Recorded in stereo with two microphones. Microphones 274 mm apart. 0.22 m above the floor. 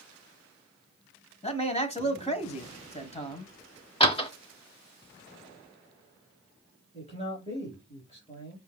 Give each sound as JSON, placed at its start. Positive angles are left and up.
{"t": 1.4, "sound": "a man speaking", "side_deg": 20, "distance_m": 1.2}
{"t": 4.0, "sound": "a door slam", "side_deg": 20, "distance_m": 1.0}
{"t": 6.9, "sound": "a man speaking", "side_deg": 20, "distance_m": 3.5}